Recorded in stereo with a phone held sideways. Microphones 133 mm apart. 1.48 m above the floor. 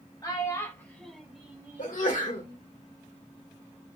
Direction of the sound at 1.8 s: 80° left.